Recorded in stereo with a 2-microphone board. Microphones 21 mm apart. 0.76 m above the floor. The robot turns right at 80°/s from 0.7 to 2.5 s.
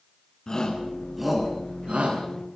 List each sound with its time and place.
0.5 s a shout: 35° left (ahead or behind), 9.5 m; by 2.2 s 85° right, 9.5 m